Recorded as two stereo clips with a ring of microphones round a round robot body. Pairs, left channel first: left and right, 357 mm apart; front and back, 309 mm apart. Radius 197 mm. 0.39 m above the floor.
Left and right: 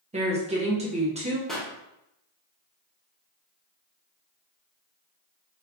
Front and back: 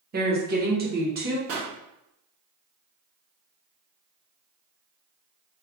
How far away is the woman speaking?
About 1.0 m.